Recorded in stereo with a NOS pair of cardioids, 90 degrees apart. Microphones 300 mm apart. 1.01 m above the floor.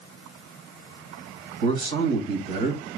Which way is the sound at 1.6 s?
65° right.